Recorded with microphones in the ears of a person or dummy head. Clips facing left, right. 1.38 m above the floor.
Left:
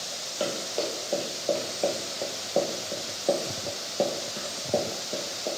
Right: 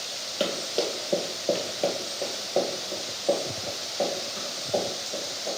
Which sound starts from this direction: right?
Running footsteps, at 0.4 s.